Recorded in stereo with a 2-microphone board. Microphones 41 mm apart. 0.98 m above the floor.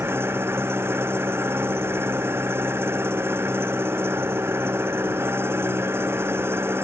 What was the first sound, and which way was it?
An engine running, 75° right (ahead or behind).